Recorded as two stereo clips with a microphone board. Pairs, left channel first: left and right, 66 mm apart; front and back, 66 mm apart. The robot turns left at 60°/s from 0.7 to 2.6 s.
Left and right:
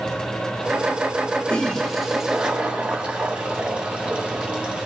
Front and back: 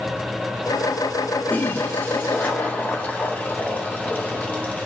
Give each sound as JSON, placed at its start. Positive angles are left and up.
{"t": 1.5, "sound": "a toilet flushing", "azimuth_deg": 35, "distance_m": 0.9}